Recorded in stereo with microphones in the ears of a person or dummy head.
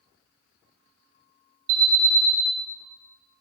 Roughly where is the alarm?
Right.